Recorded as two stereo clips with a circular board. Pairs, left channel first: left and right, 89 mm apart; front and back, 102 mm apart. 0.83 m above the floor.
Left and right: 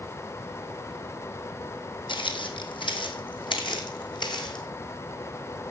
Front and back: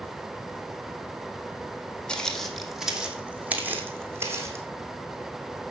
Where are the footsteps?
80° left, 2 m; by 4.7 s 120° left, 3 m.